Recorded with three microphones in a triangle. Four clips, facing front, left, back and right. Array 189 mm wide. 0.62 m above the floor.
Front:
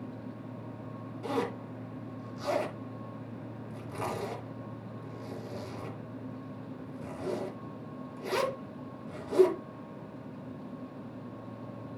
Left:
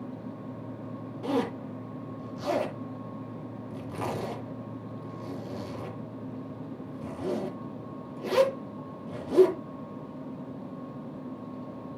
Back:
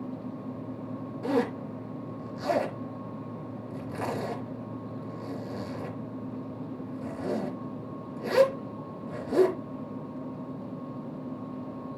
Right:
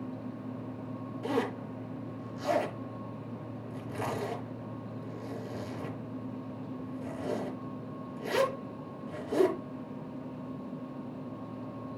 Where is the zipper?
125° left, 3 m.